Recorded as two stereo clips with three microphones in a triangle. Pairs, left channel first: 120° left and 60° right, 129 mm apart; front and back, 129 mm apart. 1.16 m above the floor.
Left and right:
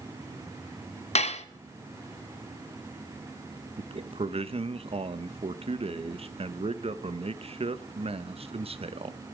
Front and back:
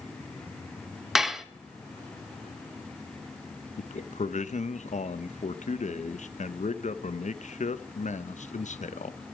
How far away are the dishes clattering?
About 0.8 m.